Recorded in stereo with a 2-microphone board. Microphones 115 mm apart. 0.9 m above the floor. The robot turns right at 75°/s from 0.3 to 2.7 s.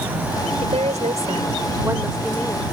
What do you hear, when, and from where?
0.6 s a woman speaking: 120° right; by 2.7 s 35° left